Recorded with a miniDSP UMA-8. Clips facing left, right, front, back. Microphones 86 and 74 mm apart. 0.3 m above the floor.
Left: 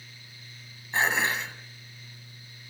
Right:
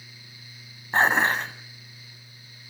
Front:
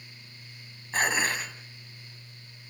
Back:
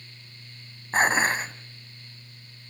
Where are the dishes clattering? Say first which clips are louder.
Right 5 dB, back 5 dB; 130° right, 1.2 m.